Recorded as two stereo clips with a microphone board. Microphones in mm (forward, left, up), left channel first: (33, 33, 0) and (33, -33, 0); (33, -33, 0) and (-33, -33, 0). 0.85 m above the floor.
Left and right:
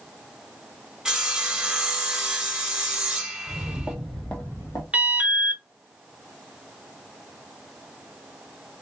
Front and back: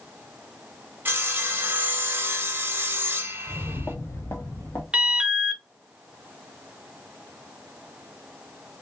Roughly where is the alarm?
Behind right.